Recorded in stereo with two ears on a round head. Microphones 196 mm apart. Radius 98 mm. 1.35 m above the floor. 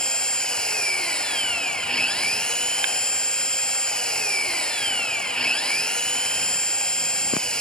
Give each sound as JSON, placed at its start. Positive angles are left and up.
{"t": 0.0, "sound": "an engine running", "side_deg": 5}